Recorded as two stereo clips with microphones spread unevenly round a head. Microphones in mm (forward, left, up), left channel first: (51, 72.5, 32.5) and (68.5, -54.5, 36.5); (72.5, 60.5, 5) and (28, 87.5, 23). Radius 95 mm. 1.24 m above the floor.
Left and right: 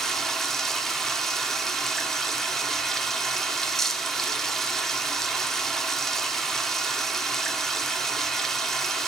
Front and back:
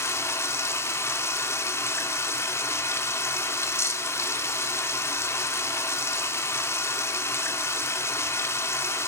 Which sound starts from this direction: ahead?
Running water, at 0.0 s.